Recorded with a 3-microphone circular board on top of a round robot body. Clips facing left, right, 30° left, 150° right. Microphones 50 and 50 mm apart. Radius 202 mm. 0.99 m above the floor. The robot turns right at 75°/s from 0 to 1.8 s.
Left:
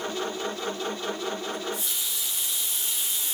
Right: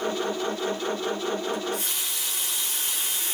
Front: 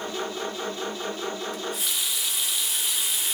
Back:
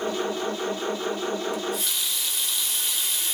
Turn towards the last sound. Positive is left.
turn(degrees=-55)